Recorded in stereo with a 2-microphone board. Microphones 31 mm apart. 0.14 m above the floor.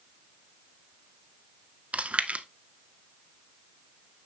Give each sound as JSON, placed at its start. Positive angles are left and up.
{"t": 1.9, "sound": "chewing", "side_deg": -50, "distance_m": 0.6}